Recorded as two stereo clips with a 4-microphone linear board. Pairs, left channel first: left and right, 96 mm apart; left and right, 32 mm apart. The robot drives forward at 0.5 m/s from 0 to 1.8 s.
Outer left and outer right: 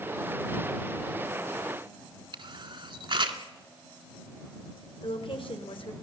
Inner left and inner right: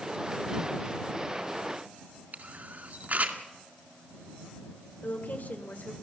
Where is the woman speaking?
65° left (ahead or behind), 2.5 m.